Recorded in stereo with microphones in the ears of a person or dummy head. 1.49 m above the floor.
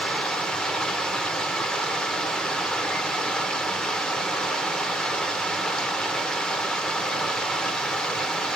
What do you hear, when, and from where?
0.0 s running water: 10° left (ahead or behind), 0.7 m